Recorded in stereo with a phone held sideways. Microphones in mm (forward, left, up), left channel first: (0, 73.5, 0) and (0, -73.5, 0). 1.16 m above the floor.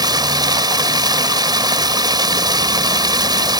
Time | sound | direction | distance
0.0 | running water | 30° right (ahead or behind) | ?